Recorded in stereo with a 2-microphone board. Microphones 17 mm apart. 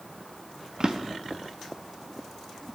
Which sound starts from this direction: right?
A drawer, at 0.8 s.